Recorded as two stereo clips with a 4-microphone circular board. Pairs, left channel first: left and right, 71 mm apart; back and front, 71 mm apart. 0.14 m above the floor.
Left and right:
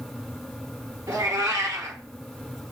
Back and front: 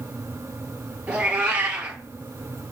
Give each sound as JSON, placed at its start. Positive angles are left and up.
{"t": 1.1, "sound": "a cat meowing", "azimuth_deg": -70, "distance_m": 1.0}